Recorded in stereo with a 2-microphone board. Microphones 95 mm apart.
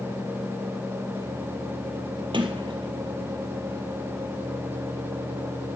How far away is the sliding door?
About 1.9 m.